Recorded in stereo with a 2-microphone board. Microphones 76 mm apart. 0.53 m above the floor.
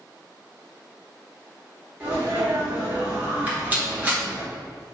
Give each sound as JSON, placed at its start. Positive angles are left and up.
{"t": 2.0, "sound": "a sneeze", "side_deg": -30, "distance_m": 1.8}
{"t": 3.5, "sound": "a rattle", "side_deg": -20, "distance_m": 1.3}